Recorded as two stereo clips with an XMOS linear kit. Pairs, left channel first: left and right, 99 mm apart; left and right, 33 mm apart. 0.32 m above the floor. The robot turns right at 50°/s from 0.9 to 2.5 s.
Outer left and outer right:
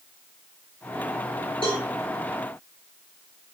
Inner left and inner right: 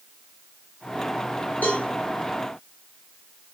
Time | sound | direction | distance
1.6 | a cowbell | 60° left (ahead or behind) | 5 m